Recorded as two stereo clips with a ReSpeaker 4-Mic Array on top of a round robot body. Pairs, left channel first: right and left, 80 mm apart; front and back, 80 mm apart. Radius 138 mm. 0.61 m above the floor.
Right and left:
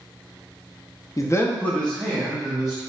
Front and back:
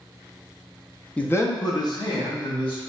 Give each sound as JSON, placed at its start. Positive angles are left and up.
{"t": 1.2, "sound": "a man speaking", "azimuth_deg": -75, "distance_m": 0.8}